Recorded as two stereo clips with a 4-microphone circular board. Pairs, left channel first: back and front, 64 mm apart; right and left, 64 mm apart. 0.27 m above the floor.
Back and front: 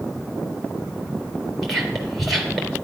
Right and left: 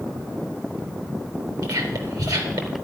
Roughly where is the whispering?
Left.